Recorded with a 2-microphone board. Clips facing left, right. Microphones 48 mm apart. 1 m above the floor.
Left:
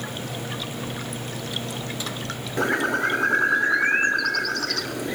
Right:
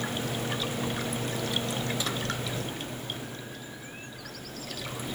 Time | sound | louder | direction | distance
2.6 | a bird | left 14 dB | 75° left (ahead or behind) | ?